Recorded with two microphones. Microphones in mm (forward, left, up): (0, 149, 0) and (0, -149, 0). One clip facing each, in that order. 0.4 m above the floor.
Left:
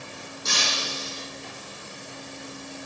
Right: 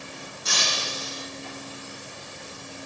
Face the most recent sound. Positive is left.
turn(degrees=50)  # may be behind; listen again after turning